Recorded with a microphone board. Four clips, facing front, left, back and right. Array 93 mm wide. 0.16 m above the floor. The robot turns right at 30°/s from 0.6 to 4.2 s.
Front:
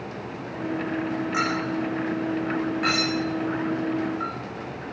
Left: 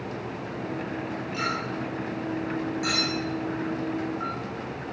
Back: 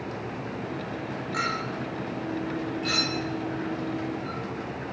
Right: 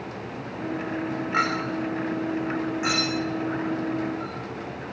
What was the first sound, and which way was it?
A clink, 70° right.